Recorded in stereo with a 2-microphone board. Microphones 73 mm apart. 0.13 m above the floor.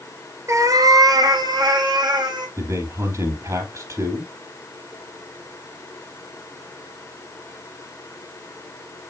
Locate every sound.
0.5 s a cat meowing: 45° right (ahead or behind), 1.1 m; by 2.5 s 80° right, 2.5 m
2.6 s a man speaking: 45° right (ahead or behind), 4 m